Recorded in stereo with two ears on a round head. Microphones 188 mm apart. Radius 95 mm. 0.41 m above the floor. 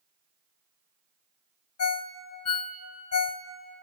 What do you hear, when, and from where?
1.8 s a ringtone: 80° left, 1.0 m